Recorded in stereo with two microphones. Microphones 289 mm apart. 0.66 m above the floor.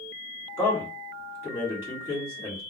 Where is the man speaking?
10° right (ahead or behind), 1.8 m.